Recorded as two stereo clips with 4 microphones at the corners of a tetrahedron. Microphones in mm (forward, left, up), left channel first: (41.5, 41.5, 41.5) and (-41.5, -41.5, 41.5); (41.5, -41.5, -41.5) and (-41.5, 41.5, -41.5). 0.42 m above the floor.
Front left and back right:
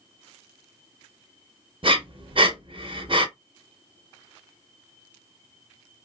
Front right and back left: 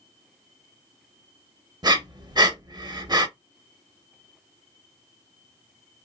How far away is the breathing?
About 0.5 m.